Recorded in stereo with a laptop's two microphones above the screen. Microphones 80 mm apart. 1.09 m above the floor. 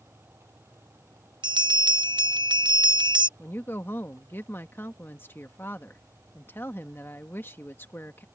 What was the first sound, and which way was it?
A fan, 30° right (ahead or behind).